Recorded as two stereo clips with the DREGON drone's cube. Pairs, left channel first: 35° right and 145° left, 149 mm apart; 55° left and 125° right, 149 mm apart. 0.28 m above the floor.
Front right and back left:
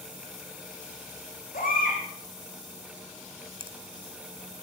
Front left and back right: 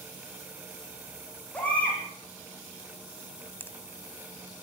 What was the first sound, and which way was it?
A baby crying, 25° right.